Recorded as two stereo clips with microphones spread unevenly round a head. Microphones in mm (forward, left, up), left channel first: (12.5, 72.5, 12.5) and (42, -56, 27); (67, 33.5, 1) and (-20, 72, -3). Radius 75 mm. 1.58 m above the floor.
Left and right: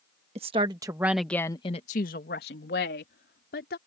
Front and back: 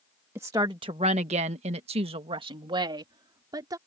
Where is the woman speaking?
130° right; by 3.8 s 105° left.